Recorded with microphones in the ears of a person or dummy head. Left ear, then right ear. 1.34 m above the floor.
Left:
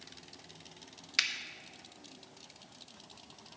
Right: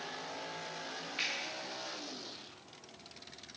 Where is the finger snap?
70° left (ahead or behind), 0.7 m.